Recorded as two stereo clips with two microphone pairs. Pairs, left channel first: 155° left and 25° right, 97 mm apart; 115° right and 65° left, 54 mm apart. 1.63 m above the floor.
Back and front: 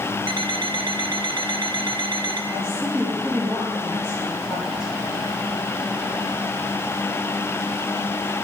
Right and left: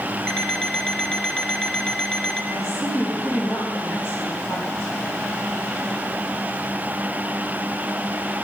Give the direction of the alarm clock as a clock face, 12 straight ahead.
1 o'clock.